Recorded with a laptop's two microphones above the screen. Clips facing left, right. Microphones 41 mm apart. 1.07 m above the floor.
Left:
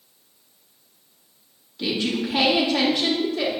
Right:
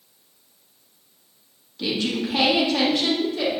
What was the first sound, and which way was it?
A woman speaking, centre (ahead or behind).